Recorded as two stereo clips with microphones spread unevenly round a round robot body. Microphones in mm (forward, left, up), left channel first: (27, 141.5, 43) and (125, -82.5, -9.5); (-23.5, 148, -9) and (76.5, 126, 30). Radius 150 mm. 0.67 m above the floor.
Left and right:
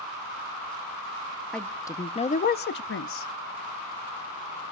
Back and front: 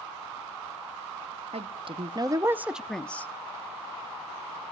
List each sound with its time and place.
1.5 s a woman speaking: 15° left, 0.8 m; by 3.3 s 135° left, 0.7 m